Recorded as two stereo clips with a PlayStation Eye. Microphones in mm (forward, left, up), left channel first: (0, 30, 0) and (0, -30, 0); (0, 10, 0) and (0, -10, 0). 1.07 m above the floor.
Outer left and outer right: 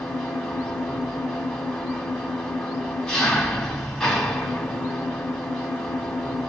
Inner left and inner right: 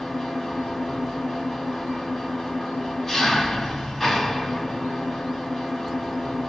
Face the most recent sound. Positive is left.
turn(degrees=10)  # may be behind; listen again after turning